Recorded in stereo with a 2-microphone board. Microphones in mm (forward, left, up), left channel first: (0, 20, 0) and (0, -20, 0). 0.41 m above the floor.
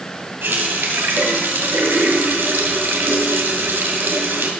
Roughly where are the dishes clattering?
No dishes clattering in this recording.